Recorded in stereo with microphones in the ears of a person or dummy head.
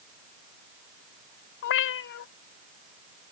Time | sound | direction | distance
1.6 | a cat meowing | 60° left (ahead or behind) | ?